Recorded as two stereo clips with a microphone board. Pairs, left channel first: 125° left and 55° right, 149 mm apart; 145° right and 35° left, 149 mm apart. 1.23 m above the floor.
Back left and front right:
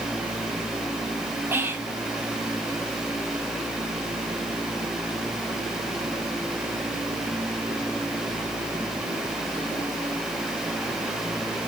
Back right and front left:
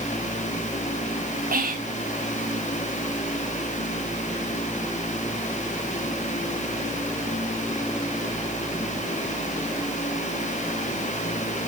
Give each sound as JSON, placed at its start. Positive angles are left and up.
{"t": 1.5, "sound": "whispering", "azimuth_deg": 20, "distance_m": 0.7}